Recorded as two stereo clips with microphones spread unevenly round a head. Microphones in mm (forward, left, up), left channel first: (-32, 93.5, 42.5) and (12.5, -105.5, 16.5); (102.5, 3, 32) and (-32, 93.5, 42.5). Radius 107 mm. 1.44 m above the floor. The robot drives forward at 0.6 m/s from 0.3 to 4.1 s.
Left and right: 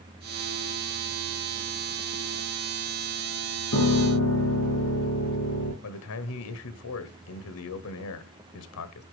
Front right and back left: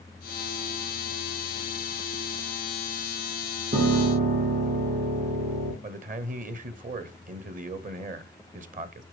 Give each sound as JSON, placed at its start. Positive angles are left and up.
{"t": 3.7, "sound": "a piano", "azimuth_deg": 110, "distance_m": 5.0}
{"t": 5.8, "sound": "a man speaking", "azimuth_deg": 105, "distance_m": 0.9}